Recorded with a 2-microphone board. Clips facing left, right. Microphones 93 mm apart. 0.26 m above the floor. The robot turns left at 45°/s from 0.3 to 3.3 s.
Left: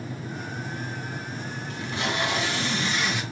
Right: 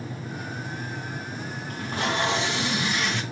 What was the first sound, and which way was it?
Tape being pulled, 120° right.